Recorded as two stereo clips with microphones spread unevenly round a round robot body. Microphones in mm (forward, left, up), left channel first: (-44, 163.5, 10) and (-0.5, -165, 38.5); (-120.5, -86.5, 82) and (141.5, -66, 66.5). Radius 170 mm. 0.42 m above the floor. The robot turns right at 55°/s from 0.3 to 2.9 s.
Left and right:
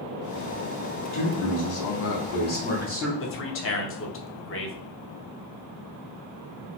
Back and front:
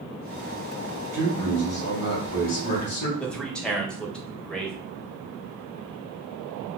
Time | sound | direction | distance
1.1 | a man speaking | 85° left | 2.5 m
3.2 | a man speaking | 95° left | 1.0 m